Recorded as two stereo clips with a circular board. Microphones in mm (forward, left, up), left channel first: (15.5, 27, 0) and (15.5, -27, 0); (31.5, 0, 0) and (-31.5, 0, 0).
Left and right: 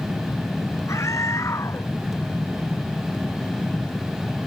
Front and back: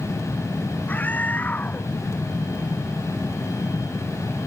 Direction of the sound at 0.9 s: 65° left.